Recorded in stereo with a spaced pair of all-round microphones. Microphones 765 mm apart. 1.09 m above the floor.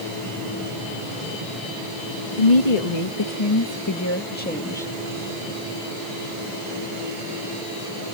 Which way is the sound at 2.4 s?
60° left (ahead or behind).